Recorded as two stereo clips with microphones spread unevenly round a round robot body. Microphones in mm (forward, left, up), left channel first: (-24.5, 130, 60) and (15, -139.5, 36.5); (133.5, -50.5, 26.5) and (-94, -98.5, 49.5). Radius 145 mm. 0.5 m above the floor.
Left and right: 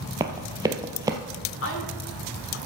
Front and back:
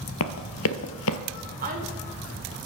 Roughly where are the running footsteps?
Ahead.